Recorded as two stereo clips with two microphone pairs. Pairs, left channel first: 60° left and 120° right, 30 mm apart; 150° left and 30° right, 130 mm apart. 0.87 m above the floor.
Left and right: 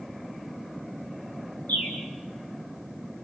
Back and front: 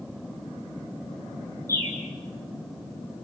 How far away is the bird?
About 6.5 m.